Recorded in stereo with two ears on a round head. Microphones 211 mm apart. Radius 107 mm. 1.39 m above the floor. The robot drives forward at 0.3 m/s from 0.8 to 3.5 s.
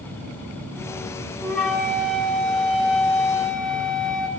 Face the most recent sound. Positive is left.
turn(degrees=0)  # may be behind; listen again after turning